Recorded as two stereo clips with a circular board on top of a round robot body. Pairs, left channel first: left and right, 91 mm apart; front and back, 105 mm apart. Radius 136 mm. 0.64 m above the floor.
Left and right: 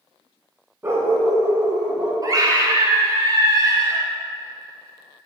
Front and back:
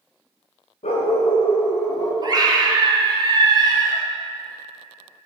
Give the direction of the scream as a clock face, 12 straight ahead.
4 o'clock.